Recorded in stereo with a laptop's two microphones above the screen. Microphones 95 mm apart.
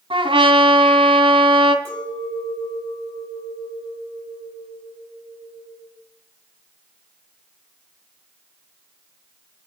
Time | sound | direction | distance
0.1 | a trumpet | 70° right (ahead or behind) | 1.9 m
1.9 | a clink | 20° left (ahead or behind) | 4 m